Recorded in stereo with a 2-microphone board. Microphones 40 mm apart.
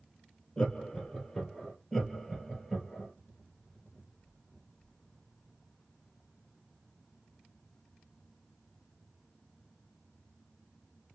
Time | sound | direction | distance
0.6 | laughter | 20° left (ahead or behind) | 2.5 m
1.9 | laughter | 15° left (ahead or behind) | 2.5 m